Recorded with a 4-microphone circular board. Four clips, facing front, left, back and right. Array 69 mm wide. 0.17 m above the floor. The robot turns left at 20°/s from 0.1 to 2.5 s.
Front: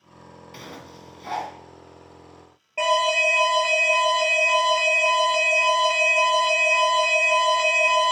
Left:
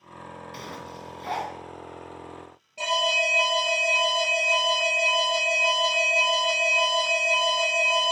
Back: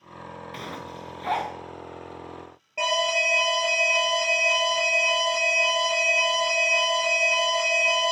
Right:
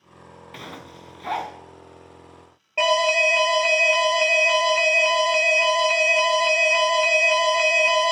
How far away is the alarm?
About 2 m.